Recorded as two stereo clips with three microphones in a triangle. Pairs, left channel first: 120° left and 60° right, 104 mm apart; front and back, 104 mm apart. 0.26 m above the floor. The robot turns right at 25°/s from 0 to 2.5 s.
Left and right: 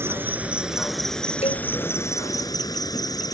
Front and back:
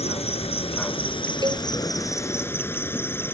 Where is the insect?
5° left; by 3.3 s 70° left.